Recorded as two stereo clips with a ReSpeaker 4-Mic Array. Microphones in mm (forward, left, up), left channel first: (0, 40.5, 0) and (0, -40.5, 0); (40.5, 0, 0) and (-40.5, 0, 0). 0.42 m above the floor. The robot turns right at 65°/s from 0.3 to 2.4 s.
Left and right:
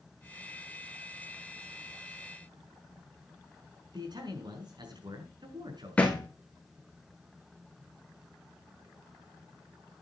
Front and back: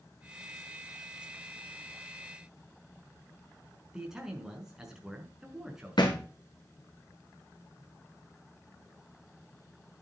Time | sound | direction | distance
3.9 | a man speaking | 100° right | 5.5 m
6.0 | a thud | 15° left | 3.5 m